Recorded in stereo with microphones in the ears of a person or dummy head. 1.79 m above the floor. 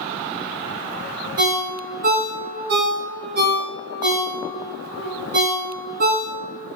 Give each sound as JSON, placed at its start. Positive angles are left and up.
{"t": 1.4, "sound": "a ringtone", "side_deg": -50, "distance_m": 1.0}